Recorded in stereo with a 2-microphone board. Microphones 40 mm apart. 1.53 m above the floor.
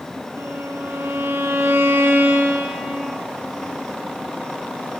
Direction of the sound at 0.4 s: 65° right (ahead or behind).